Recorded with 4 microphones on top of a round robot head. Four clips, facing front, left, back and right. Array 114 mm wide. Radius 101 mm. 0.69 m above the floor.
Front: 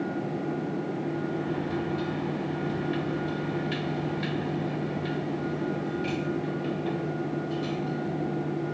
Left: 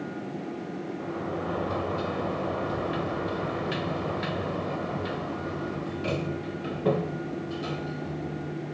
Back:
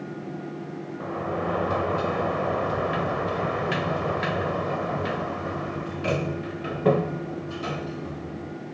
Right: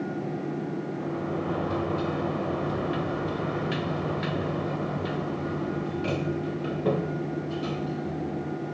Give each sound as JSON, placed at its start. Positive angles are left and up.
{"t": 1.0, "sound": "a sliding door", "azimuth_deg": 175}